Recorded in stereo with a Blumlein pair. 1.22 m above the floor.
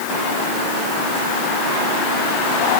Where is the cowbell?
No cowbell in this recording.